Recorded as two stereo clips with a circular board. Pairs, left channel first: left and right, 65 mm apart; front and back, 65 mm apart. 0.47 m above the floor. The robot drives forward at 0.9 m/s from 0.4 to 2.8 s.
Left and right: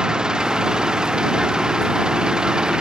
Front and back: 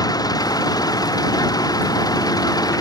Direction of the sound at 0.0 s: 10° right.